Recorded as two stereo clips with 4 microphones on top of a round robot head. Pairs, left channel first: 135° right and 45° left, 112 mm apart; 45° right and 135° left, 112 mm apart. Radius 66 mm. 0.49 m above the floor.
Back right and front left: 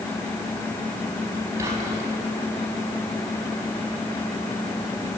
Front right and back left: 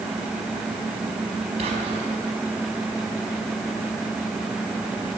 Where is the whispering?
105° left, 4 m.